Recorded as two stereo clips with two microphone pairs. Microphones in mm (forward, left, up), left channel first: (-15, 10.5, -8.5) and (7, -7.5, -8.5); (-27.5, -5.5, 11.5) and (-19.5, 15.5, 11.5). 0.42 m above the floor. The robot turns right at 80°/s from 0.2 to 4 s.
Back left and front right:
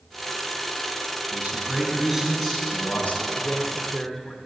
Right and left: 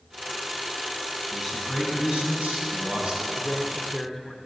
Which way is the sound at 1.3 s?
25° right.